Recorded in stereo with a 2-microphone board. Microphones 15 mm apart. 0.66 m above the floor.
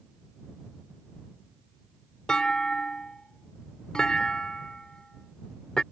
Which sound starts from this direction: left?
A clunk, at 2.3 s.